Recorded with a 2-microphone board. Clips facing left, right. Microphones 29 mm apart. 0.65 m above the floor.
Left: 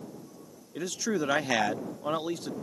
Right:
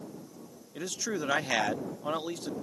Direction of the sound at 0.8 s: 5° left (ahead or behind).